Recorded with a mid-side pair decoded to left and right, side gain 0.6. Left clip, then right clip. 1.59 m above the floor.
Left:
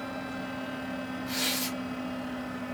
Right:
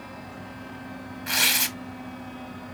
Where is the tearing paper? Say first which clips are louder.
Right 9 dB; 70° right, 0.9 m.